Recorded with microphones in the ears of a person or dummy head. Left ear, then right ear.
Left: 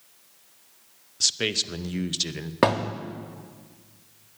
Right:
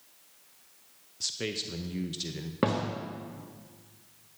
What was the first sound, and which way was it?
A man speaking, 30° left (ahead or behind).